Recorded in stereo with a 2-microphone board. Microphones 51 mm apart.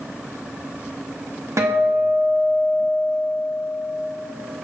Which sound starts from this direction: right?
A guitar, at 1.6 s.